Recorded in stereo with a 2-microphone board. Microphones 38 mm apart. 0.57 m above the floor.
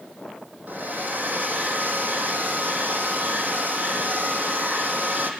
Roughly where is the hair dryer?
Right.